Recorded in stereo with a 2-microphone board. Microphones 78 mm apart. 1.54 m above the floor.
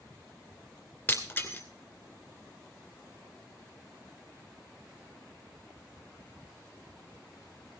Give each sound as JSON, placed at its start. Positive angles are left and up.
{"t": 1.1, "sound": "breaking glass", "side_deg": 30, "distance_m": 2.5}